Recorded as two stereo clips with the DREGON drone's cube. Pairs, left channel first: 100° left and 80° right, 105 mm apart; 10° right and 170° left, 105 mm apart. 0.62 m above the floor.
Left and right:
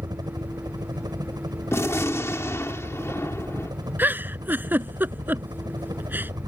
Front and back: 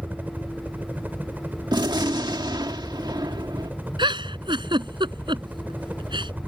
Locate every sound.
0.0 s a helicopter: 120° right
1.7 s a gunshot: 150° left
4.0 s a giggle: 150° right